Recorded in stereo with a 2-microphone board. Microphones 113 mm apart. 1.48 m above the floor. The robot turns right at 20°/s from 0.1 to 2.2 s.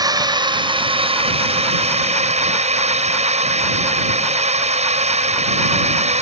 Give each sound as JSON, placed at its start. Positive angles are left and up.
{"t": 0.0, "sound": "a drone", "azimuth_deg": -145}